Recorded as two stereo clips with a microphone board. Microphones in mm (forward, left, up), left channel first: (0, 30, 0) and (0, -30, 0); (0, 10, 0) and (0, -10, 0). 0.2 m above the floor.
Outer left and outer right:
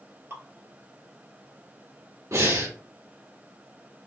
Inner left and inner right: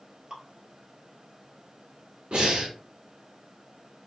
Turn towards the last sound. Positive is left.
turn(degrees=-65)  # may be behind; listen again after turning